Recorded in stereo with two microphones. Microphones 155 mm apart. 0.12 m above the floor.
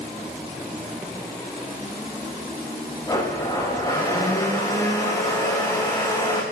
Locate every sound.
3.1 s a blender: 20° left (ahead or behind), 7 m